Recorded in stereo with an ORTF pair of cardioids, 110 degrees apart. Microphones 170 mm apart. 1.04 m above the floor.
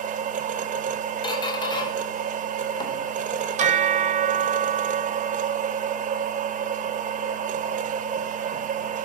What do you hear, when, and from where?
0.0 s a machine running: 50° right, 1.1 m
1.2 s a squeak: 25° left, 1.9 m
3.6 s a bell: 45° right, 1.0 m